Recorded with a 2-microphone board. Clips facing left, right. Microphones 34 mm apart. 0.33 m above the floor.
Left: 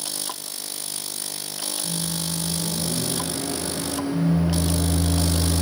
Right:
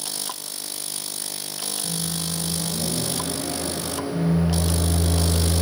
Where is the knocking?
I don't hear knocking.